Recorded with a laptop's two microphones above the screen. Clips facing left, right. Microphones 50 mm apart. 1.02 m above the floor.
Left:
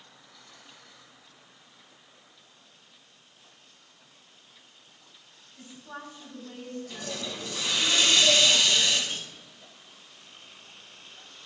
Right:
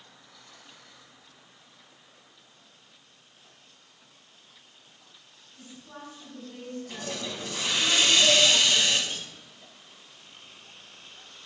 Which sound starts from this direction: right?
A hiss, at 6.9 s.